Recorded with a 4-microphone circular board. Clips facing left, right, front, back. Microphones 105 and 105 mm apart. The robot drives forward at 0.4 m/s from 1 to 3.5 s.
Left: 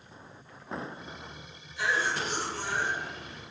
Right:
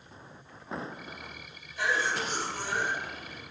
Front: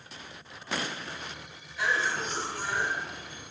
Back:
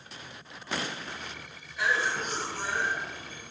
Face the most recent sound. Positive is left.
turn(degrees=-130)